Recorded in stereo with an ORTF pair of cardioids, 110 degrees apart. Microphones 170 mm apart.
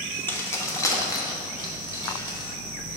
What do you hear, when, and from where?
0.3 s keys jangling: 10° left, 0.9 m; by 2.5 s 30° left, 2 m